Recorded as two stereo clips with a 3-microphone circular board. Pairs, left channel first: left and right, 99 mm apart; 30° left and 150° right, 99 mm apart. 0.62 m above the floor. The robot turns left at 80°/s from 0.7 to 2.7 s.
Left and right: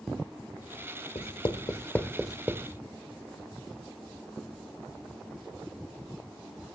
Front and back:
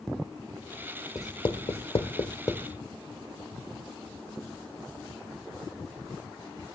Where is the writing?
85° left, 1.2 m; by 2.7 s 35° right, 1.2 m.